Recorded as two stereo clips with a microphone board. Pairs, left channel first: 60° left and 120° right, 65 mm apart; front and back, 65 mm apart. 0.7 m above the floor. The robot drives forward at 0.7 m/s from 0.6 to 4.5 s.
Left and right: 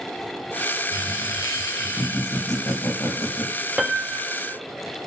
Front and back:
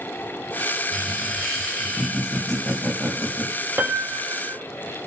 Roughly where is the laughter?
Left.